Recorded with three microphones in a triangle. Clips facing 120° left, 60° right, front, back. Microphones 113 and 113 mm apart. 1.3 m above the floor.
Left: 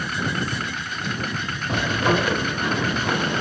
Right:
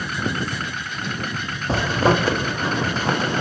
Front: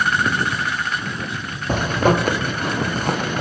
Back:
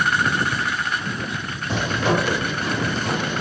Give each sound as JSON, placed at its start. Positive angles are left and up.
{"t": 1.7, "sound": "a zipper", "azimuth_deg": -15, "distance_m": 0.8}